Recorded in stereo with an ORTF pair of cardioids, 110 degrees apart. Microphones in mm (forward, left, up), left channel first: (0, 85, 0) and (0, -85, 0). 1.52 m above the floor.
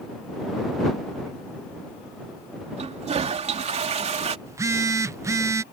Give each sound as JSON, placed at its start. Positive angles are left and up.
{"t": 2.8, "sound": "a toilet flushing", "azimuth_deg": -40}
{"t": 4.5, "sound": "a phone buzzing", "azimuth_deg": -15}